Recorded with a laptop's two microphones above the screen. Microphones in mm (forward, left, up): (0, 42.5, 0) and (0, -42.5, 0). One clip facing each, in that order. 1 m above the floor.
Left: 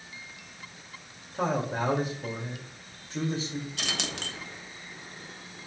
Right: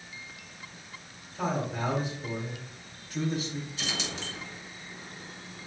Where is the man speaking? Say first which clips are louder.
Left 3 dB; 65° left (ahead or behind), 2 m; by 3.7 s 20° left (ahead or behind), 2.5 m.